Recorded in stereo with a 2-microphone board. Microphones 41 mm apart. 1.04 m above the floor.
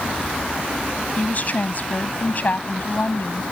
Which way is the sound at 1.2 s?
45° left (ahead or behind).